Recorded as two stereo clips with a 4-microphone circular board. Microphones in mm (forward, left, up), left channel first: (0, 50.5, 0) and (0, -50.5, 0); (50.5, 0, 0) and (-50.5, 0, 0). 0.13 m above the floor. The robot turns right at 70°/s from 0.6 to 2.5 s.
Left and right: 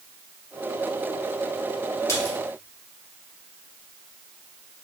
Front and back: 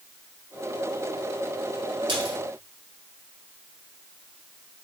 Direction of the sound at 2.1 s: 145° left.